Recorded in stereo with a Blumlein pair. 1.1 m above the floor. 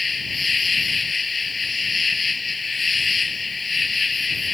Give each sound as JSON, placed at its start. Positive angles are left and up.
{"t": 0.0, "sound": "an insect", "azimuth_deg": 15}